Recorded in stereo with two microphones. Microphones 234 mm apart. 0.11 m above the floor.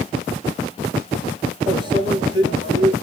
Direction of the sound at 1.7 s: 20° right (ahead or behind).